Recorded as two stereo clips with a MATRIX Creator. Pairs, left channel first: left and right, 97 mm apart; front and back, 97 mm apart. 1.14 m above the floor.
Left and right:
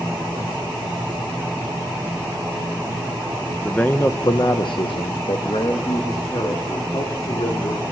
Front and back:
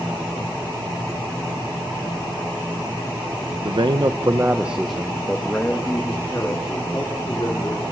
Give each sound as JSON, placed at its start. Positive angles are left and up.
{"t": 3.6, "sound": "a man speaking", "azimuth_deg": 170, "distance_m": 1.1}